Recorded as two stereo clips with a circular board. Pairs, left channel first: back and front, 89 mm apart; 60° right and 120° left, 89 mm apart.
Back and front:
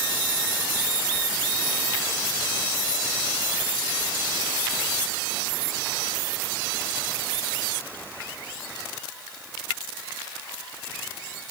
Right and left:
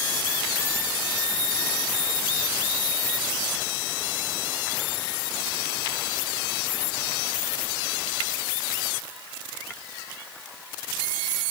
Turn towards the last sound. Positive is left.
No sound to turn to.